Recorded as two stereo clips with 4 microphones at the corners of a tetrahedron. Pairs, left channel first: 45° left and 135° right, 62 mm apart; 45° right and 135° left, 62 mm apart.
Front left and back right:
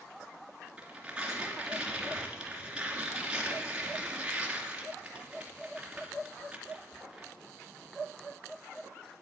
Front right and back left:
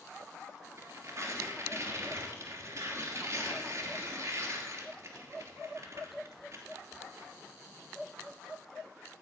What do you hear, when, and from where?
0.8 s tearing paper: 155° left, 3 m